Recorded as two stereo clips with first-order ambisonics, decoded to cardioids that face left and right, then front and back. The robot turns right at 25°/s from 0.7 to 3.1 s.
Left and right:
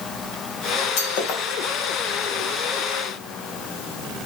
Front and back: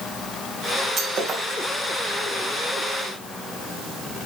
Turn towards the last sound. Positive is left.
turn(degrees=165)